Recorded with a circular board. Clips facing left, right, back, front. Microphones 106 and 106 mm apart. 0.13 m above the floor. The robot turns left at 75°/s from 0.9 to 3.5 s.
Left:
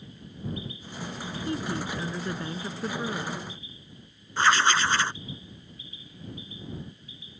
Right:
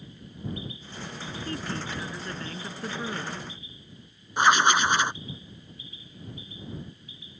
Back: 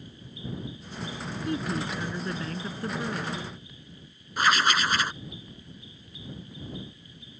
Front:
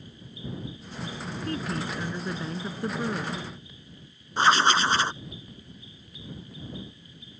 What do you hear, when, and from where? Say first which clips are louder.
1.4 s a woman speaking: left 4 dB, back 2 dB; 135° left; by 3.4 s 5° right
4.4 s writing: right 2 dB, front 3 dB; 30° right